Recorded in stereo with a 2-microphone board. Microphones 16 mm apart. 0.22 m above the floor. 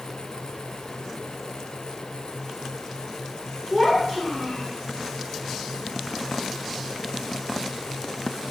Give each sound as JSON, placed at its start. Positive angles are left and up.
{"t": 3.7, "sound": "a child speaking", "side_deg": 35, "distance_m": 1.4}